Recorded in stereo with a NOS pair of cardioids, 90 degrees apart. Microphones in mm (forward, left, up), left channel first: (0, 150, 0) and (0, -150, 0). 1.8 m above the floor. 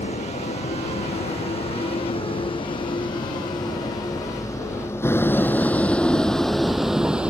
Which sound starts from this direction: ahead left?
A vehicle, at 0.0 s.